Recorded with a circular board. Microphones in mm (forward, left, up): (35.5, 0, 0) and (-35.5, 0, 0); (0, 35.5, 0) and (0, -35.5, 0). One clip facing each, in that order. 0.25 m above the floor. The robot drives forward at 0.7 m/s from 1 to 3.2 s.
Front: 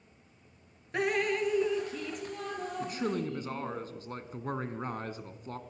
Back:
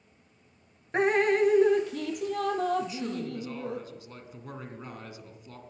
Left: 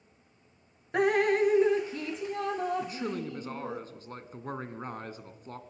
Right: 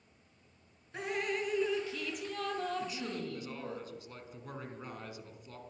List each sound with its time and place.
0.9 s dripping: 120° left, 0.7 m; by 3.8 s 160° left, 2 m
2.8 s a man speaking: 40° left, 2.5 m; by 5.6 s 45° left, 2 m